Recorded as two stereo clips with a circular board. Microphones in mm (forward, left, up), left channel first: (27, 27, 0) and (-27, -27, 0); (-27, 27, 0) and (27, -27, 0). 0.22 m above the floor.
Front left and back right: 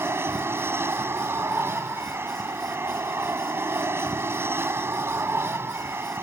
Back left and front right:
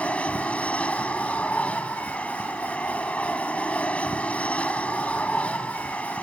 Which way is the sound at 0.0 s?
165° right.